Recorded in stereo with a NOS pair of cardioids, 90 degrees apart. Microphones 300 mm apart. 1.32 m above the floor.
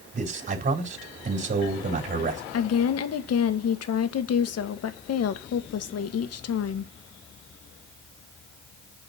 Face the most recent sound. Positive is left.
turn(degrees=60)